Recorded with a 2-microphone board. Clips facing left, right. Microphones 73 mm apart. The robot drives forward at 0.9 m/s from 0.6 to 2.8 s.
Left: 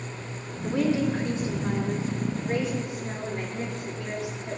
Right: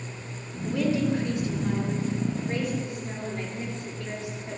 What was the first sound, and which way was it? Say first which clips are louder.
A woman speaking: left 1 dB; 35° left (ahead or behind).